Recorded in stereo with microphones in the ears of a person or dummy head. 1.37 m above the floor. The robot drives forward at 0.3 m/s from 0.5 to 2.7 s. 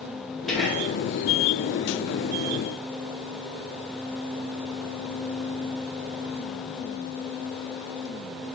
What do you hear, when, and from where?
0.5 s whispering: 5° left (ahead or behind), 0.9 m; by 0.9 s centre (ahead or behind), 1.0 m